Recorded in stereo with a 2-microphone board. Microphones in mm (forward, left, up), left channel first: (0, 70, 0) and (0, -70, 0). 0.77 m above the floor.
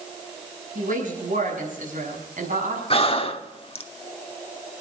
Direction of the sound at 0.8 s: 75° right (ahead or behind).